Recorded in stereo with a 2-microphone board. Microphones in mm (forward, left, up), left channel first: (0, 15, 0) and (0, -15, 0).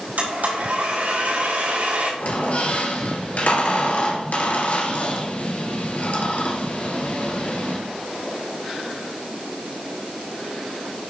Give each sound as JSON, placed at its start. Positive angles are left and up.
{"t": 0.2, "sound": "a blender", "side_deg": -65, "distance_m": 4.5}
{"t": 2.2, "sound": "a squeak", "side_deg": 50, "distance_m": 2.0}